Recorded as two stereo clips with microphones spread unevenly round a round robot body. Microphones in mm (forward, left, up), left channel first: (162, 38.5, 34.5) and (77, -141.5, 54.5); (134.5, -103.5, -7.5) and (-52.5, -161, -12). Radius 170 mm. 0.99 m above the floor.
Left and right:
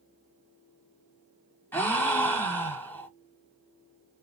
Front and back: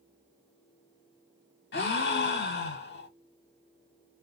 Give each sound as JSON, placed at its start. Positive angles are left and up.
{"t": 1.7, "sound": "a gasp", "azimuth_deg": -15, "distance_m": 0.8}